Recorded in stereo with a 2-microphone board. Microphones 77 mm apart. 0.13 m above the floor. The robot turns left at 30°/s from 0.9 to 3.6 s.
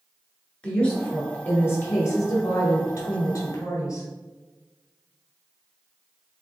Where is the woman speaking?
160° left, 1.5 m; by 4.1 s 80° left, 1.5 m.